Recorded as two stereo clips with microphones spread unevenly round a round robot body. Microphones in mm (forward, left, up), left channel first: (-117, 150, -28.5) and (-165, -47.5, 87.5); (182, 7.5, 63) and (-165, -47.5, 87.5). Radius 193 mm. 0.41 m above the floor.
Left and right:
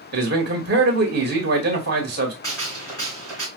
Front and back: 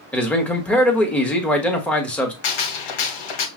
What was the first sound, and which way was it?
A man speaking, 60° right.